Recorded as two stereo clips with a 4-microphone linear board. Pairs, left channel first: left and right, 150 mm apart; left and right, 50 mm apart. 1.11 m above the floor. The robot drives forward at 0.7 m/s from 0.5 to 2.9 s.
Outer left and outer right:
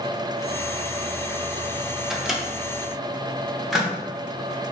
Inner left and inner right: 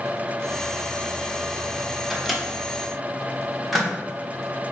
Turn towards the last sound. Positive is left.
turn(degrees=0)  # may be behind; listen again after turning